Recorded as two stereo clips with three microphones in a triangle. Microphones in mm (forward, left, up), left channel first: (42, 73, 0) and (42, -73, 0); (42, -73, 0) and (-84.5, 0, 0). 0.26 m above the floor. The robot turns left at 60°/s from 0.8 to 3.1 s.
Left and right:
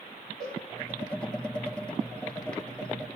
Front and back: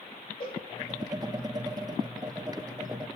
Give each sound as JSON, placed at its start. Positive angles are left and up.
{"t": 0.4, "sound": "a cowbell", "azimuth_deg": -70, "distance_m": 6.0}